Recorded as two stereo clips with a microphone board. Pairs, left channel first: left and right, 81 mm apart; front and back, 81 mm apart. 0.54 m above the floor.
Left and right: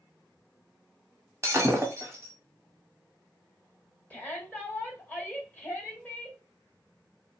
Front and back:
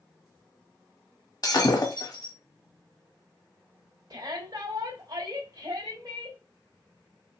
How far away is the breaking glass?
About 1.8 m.